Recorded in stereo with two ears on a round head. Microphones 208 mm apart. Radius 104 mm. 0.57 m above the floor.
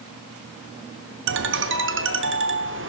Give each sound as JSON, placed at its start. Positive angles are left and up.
{"t": 1.3, "sound": "a ringtone", "side_deg": -55, "distance_m": 0.9}